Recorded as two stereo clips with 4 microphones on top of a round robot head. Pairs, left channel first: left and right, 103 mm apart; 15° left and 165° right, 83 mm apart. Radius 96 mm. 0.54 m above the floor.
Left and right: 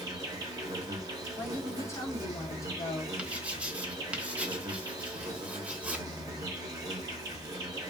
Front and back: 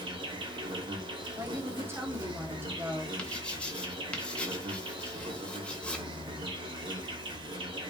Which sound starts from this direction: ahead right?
Writing, at 3.2 s.